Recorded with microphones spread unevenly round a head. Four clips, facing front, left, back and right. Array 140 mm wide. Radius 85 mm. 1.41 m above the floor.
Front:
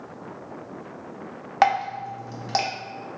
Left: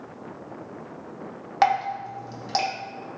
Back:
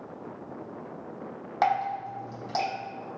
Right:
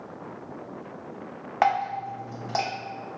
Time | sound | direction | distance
1.6 | dripping | straight ahead | 1.1 m